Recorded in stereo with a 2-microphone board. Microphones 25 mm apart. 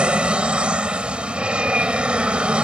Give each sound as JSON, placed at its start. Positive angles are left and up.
{"t": 0.0, "sound": "an aircraft", "side_deg": -50}